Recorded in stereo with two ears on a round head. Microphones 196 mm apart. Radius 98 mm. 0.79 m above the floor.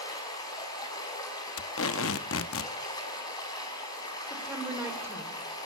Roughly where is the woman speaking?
Centre.